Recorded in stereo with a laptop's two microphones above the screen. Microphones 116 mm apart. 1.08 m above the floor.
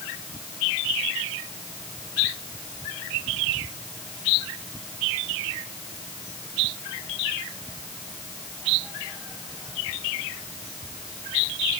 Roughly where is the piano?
No piano in this recording.